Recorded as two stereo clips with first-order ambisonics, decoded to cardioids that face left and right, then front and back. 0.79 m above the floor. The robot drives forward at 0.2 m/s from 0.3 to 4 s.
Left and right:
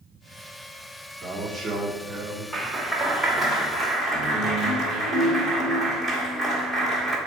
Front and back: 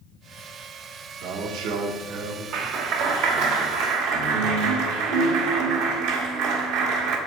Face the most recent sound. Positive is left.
turn(degrees=170)